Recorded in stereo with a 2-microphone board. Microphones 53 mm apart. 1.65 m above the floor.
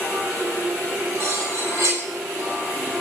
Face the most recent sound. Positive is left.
turn(degrees=-50)  # may be behind; listen again after turning